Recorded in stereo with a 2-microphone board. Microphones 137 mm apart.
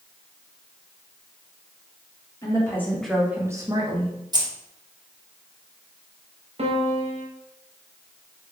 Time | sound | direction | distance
2.4 | a woman speaking | 25° left (ahead or behind) | 1.0 m
4.3 | keys jangling | 30° right (ahead or behind) | 0.7 m
6.6 | a piano | 50° right (ahead or behind) | 0.7 m